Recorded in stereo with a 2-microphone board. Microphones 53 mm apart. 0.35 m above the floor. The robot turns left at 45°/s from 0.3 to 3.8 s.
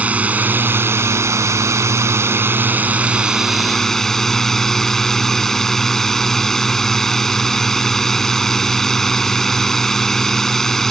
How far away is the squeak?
No squeak in this recording.